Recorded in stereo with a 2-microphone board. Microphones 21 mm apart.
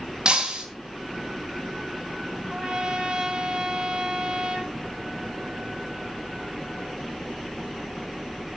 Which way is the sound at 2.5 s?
40° right (ahead or behind).